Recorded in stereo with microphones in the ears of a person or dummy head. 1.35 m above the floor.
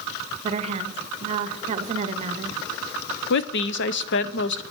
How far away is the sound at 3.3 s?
About 0.6 m.